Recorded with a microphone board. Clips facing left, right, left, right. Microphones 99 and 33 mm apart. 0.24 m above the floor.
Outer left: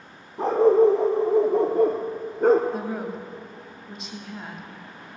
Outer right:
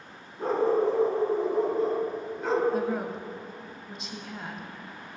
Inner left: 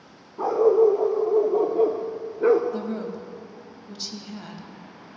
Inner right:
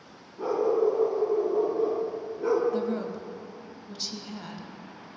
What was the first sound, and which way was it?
A dog barking, 80° left.